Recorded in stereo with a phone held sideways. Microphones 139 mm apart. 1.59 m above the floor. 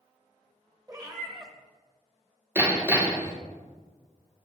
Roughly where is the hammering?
Centre.